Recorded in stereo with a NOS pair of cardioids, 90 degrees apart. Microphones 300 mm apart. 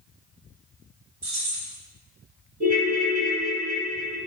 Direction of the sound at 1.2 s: 65° right.